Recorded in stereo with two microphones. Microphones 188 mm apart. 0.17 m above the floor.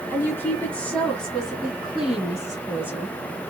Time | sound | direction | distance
0.1 | a woman speaking | 10° left (ahead or behind) | 1.3 m